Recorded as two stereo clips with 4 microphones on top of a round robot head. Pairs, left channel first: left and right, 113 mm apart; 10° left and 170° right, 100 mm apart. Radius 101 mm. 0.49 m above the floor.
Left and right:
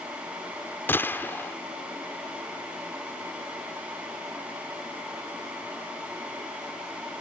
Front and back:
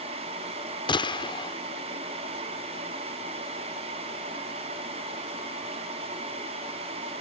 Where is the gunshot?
25° left.